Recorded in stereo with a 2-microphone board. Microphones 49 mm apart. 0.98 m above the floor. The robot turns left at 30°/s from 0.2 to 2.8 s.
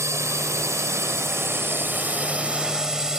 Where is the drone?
70° right (ahead or behind); by 3.2 s 10° right (ahead or behind).